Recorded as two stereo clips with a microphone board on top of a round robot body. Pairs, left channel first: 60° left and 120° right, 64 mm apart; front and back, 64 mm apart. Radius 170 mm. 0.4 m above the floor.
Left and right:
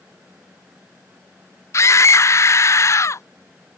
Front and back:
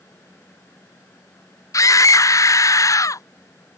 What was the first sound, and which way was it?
A scream, 25° left.